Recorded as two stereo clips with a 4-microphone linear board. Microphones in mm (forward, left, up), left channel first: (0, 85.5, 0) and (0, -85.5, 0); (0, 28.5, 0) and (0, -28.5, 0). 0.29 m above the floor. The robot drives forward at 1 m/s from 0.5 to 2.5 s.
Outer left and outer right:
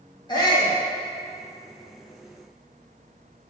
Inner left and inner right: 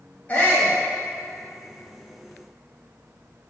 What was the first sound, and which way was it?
A shout, 25° left (ahead or behind).